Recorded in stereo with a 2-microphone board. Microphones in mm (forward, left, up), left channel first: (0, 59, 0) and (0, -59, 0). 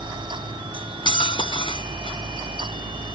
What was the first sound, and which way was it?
Cutlery clinking, 45° left (ahead or behind).